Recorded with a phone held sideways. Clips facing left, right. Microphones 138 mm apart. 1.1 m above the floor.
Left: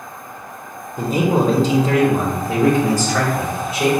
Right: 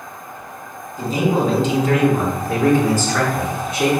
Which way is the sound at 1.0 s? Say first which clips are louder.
Left 1 dB; 60° left (ahead or behind).